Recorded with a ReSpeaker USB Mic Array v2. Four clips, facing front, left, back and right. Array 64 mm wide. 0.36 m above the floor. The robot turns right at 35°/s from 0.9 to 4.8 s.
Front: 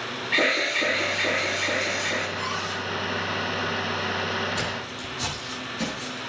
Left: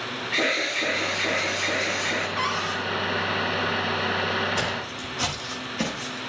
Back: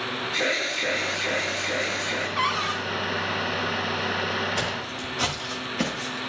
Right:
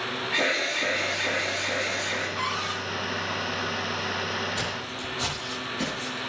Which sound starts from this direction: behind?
A cupboard door, at 2.4 s.